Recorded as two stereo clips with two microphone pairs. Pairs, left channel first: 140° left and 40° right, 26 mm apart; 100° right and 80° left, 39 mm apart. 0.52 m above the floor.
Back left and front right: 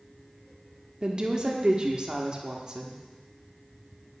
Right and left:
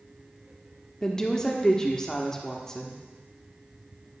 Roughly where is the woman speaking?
Ahead right.